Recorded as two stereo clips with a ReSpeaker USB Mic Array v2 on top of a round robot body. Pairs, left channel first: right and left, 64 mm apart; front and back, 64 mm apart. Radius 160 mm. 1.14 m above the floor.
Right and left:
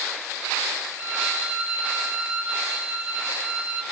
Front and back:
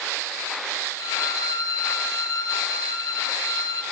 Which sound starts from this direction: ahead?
A violin, at 1.0 s.